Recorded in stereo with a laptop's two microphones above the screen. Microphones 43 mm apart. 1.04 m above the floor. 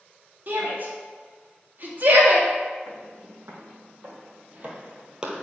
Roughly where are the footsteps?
Right.